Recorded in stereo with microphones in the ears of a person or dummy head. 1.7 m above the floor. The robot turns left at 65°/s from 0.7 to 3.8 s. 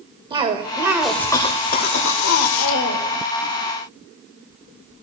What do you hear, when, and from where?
0.3 s a cough: 160° right, 0.9 m; by 3.2 s 40° left, 0.9 m